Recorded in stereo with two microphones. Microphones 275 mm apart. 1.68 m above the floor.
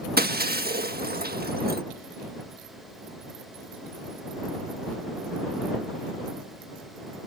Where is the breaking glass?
35° right (ahead or behind).